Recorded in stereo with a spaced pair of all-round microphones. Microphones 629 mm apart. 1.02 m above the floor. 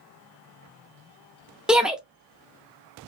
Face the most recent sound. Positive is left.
turn(degrees=0)  # may be behind; listen again after turning